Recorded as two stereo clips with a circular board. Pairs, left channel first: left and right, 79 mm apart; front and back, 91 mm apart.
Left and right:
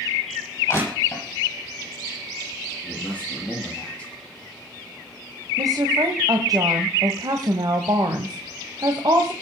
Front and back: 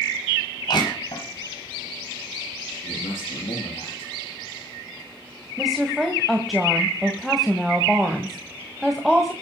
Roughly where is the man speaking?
Ahead.